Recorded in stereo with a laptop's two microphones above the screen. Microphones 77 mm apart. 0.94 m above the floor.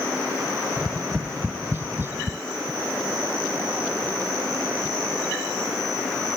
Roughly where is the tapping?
Right.